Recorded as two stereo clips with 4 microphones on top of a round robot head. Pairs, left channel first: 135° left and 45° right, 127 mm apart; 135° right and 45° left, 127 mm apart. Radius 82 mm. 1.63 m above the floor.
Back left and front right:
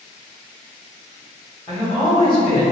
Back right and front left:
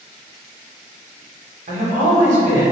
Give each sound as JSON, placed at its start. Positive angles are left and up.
{"t": 1.7, "sound": "a man speaking", "azimuth_deg": 75, "distance_m": 0.8}